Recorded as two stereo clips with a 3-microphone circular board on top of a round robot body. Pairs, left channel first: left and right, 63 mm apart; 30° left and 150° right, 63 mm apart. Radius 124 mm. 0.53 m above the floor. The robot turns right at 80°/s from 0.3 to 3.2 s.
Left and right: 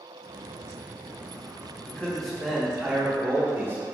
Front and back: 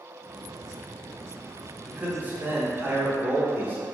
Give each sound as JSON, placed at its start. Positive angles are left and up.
{"t": 1.9, "sound": "a man speaking", "azimuth_deg": 140, "distance_m": 1.2}